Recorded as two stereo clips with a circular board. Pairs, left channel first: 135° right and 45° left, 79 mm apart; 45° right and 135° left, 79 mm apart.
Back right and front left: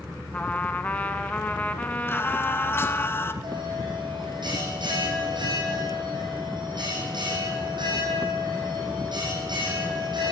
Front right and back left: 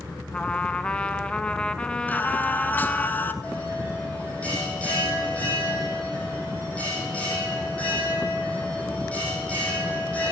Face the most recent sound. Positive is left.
turn(degrees=25)